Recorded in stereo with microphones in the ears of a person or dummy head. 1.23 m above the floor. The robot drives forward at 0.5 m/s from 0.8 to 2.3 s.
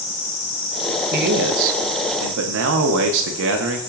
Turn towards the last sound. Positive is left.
turn(degrees=-65)  # may be behind; listen again after turning